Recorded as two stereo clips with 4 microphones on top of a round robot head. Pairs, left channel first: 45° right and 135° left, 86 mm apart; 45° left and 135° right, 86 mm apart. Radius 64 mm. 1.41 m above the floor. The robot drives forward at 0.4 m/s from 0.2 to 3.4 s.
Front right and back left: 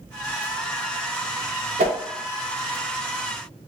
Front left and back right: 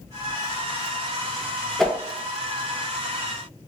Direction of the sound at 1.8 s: 130° left.